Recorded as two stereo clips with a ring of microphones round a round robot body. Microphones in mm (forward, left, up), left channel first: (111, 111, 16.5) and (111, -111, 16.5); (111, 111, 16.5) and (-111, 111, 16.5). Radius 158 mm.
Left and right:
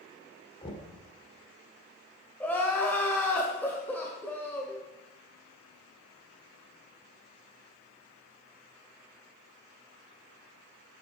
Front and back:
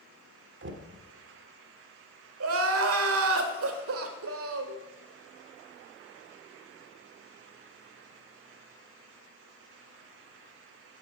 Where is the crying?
175° left, 1.5 m.